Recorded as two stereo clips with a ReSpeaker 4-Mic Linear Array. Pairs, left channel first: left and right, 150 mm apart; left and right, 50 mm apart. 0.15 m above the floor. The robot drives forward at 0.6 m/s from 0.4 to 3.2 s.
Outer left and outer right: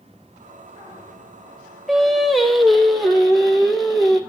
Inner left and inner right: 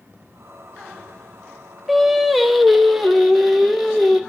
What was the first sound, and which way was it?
Singing, centre (ahead or behind).